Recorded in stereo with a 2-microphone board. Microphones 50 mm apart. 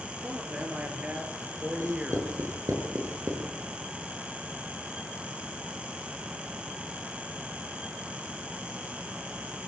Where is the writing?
80° right, 7 m.